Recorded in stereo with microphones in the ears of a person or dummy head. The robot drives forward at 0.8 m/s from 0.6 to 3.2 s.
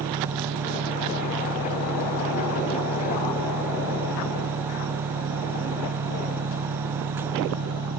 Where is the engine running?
55° right (ahead or behind); by 8.0 s 65° right (ahead or behind).